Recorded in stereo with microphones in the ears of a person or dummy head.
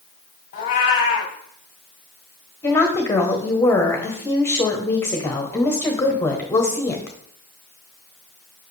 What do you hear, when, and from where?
0.5 s a cat meowing: 30° left (ahead or behind), 1.3 m
2.6 s a woman speaking: 15° left (ahead or behind), 1.0 m